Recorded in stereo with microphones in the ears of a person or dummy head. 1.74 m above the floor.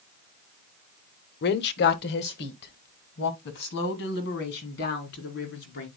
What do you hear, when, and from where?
1.4 s a woman speaking: 60° left (ahead or behind), 1.0 m; by 5.9 s 65° left (ahead or behind), 5 m